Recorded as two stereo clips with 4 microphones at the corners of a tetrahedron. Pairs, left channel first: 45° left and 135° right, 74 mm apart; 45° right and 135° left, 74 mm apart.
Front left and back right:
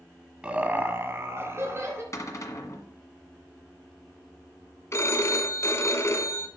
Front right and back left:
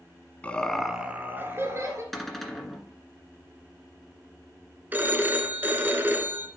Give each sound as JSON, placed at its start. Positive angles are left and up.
{"t": 0.4, "sound": "laughter", "azimuth_deg": -80, "distance_m": 1.1}
{"t": 2.1, "sound": "a cupboard door", "azimuth_deg": 40, "distance_m": 1.6}
{"t": 4.9, "sound": "a phone ringing", "azimuth_deg": 80, "distance_m": 0.9}